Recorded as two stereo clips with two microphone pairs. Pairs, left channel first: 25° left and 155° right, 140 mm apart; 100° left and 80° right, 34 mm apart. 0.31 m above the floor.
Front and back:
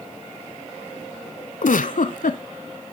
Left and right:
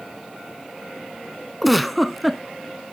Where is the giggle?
10° left, 0.6 m.